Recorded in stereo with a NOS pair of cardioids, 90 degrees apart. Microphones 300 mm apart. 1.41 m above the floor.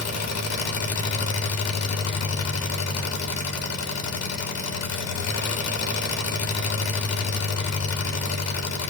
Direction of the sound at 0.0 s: 65° left.